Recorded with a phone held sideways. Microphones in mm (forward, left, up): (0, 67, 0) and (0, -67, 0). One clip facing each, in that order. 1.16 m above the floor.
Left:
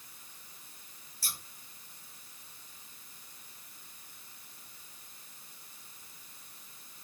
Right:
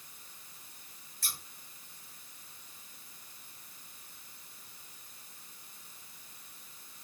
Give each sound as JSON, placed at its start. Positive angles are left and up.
{"t": 1.2, "sound": "scissors", "side_deg": 5, "distance_m": 2.5}